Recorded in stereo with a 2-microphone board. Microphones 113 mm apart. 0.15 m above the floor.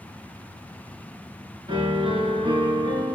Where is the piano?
50° right (ahead or behind), 2 m.